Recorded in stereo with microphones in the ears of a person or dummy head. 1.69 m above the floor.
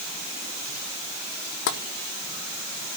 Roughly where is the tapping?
Left.